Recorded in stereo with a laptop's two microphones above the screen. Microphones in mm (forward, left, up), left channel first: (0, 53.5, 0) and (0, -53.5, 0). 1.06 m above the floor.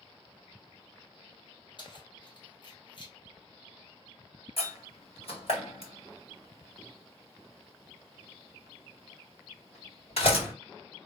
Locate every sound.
1.8 s keys jangling: 45° left (ahead or behind), 0.8 m
4.6 s a door slam: 70° left (ahead or behind), 2.0 m